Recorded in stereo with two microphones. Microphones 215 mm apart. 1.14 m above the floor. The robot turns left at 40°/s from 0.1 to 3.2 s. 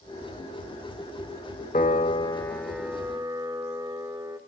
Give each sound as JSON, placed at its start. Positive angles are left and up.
{"t": 1.7, "sound": "a piano", "azimuth_deg": 40, "distance_m": 1.6}